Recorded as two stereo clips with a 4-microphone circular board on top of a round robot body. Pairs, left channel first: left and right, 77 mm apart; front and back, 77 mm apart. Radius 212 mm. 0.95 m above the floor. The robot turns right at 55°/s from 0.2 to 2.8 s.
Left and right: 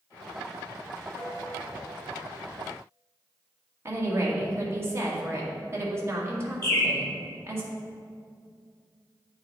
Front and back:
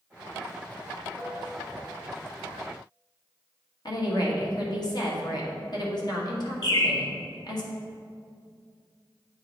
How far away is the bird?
About 1.3 m.